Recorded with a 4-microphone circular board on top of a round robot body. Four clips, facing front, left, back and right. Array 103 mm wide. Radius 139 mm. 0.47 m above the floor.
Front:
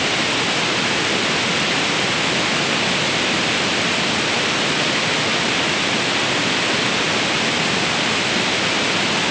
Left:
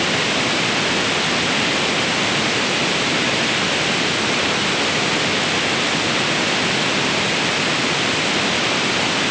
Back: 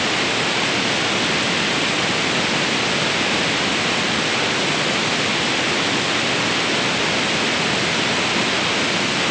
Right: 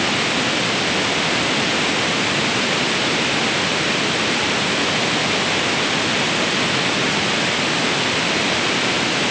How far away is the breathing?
I don't hear breathing.